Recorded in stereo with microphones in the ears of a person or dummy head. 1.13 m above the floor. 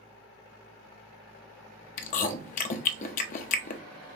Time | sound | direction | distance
2.0 | chewing | 45° left (ahead or behind) | 0.6 m